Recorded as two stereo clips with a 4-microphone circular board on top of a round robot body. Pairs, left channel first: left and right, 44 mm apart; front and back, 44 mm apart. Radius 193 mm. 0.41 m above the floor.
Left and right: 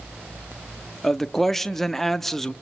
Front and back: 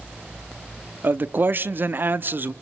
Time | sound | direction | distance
1.0 | a man speaking | 170° left | 1.1 m